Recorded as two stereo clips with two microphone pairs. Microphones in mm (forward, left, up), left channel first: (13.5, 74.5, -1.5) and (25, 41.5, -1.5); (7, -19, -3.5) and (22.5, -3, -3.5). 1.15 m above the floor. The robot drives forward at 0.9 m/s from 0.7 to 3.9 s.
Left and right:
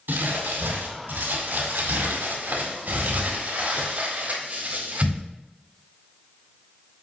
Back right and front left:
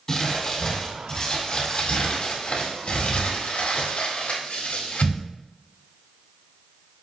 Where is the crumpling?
70° right, 4 m; by 5.2 s 110° right, 4 m.